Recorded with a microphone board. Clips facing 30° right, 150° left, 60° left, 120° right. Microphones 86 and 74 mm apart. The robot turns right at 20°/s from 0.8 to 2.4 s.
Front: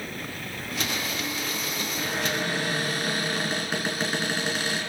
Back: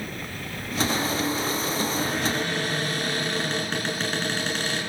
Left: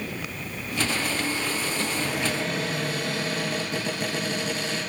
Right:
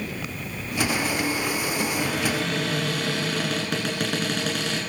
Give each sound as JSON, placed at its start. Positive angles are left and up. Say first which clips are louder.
{"t": 2.0, "sound": "a cupboard door", "louder": "back 3 dB, right 2 dB", "azimuth_deg": -120, "distance_m": 7.5}